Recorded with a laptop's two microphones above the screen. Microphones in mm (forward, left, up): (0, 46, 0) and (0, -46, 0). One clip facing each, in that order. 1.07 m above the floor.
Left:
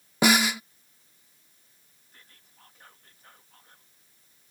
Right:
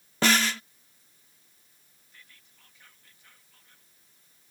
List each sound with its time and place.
0.2 s a snare drum: 15° left (ahead or behind)
2.1 s whispering: 40° left (ahead or behind)